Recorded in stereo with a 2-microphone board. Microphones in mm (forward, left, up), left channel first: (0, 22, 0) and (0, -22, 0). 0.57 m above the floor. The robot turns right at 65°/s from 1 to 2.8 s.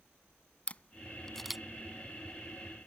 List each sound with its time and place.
0.7 s a camera shutter: 30° left (ahead or behind); by 1.6 s 10° right (ahead or behind)